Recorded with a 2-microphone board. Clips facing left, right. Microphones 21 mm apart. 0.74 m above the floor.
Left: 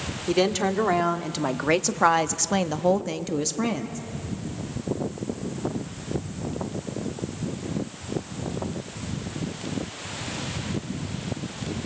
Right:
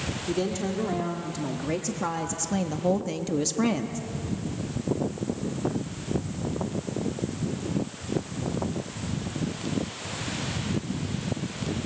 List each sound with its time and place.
0.3 s a woman speaking: 55° left (ahead or behind), 1.8 m; by 4.0 s 10° right (ahead or behind), 1.1 m